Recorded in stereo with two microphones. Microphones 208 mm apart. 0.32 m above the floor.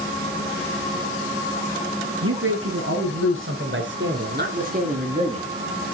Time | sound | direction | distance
2.2 | a man speaking | 75° right (ahead or behind) | 5 m